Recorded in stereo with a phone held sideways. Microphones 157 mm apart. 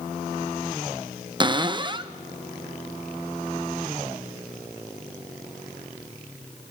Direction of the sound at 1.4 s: 30° right (ahead or behind).